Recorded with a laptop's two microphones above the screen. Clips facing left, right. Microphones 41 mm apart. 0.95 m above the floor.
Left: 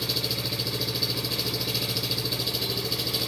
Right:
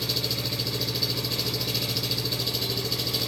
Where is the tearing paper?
No tearing paper in this recording.